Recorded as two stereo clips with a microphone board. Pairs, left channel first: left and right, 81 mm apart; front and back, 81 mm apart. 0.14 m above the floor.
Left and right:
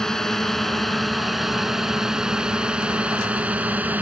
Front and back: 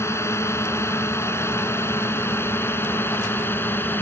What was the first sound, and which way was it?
A drone, 10° left.